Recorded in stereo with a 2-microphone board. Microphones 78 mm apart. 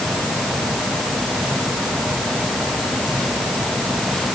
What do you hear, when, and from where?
Only background noise.